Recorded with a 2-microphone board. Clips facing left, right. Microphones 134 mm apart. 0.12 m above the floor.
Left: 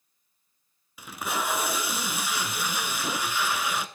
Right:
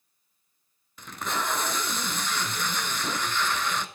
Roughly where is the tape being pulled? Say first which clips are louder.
Even; centre.